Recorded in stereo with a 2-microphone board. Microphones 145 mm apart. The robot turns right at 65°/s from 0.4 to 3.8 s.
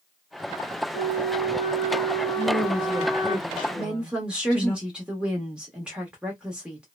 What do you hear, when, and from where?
0.9 s a flute: 75° left, 0.6 m; by 3.4 s 130° right, 0.6 m
2.4 s a woman speaking: 25° right (ahead or behind), 1.4 m; by 4.8 s 5° right (ahead or behind), 1.4 m
3.8 s a woman speaking: 10° right (ahead or behind), 1.1 m